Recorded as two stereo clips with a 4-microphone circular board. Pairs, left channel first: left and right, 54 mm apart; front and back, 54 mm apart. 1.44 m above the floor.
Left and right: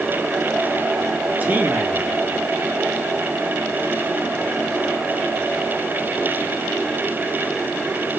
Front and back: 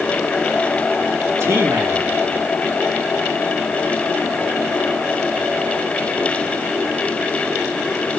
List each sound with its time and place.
1.4 s a man speaking: 150° right, 4 m